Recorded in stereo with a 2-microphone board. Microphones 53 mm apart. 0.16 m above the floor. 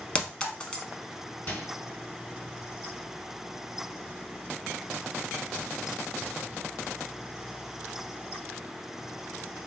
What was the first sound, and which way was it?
A clink, 20° left (ahead or behind).